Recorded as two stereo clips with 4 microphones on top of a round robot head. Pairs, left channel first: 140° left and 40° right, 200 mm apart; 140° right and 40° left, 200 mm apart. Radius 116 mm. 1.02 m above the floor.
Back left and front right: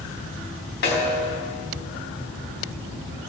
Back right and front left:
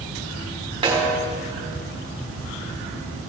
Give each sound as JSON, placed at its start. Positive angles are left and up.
{"t": 0.8, "sound": "a snare drum", "azimuth_deg": 105, "distance_m": 3.5}